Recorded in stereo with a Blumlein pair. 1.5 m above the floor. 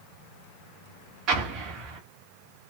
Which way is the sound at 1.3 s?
35° right.